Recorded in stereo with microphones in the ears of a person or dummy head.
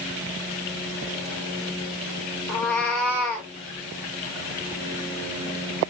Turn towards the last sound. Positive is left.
turn(degrees=0)  # may be behind; listen again after turning